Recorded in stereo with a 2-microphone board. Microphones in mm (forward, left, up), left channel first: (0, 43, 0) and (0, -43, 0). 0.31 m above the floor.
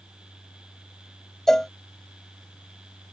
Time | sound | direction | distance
1.5 | a cowbell | 5° left (ahead or behind) | ?